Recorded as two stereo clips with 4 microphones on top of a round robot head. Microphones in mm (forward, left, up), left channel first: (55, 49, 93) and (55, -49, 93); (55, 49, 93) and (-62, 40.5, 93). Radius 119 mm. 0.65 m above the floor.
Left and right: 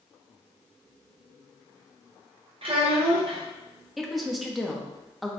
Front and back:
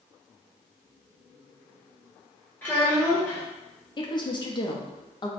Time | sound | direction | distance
2.6 | a child speaking | 70° right | 1.4 m
4.0 | a woman speaking | straight ahead | 1.1 m